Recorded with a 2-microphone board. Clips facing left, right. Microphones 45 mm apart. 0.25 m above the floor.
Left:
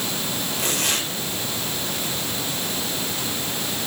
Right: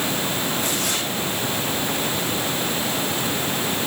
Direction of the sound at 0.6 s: 80° left.